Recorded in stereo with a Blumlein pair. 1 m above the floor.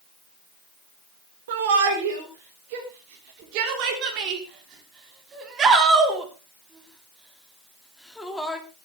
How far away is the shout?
About 4 m.